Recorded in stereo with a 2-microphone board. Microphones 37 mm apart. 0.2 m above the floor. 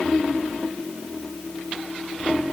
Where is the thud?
I don't hear a thud.